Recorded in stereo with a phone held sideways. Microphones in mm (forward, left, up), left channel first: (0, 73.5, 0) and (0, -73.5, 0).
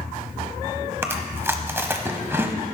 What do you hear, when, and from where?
1.0 s chewing: 15° right (ahead or behind), 0.9 m